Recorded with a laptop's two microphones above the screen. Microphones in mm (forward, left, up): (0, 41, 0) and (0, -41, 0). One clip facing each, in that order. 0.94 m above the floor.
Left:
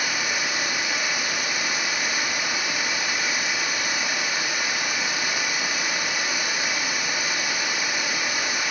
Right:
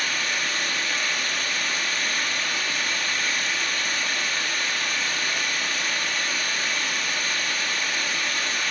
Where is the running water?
15° left (ahead or behind), 0.8 m.